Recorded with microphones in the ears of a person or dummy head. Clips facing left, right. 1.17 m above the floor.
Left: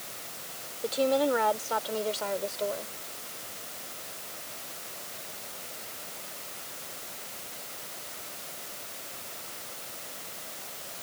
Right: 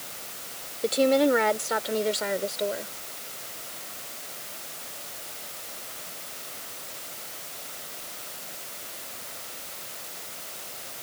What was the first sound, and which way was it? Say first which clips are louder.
A woman speaking: right 5 dB; 40° right (ahead or behind).